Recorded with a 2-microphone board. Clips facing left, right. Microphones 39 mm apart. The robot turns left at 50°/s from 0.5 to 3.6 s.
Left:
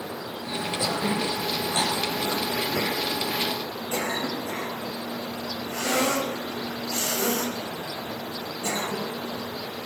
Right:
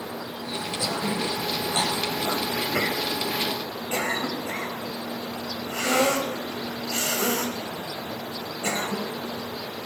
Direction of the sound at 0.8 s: 20° left (ahead or behind).